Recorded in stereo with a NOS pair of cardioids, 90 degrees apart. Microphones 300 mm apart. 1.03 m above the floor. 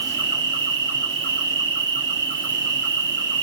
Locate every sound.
0.0 s an insect: 40° right, 1.3 m